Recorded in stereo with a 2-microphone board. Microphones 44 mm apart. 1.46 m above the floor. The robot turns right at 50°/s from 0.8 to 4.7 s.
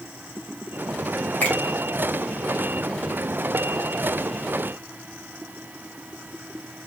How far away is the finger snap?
About 2.5 m.